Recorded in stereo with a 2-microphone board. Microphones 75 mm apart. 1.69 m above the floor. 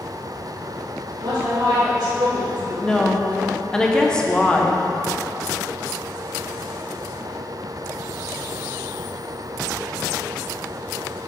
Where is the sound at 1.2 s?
85° right, 3.5 m; by 2.7 s 75° right (ahead or behind), 2.5 m.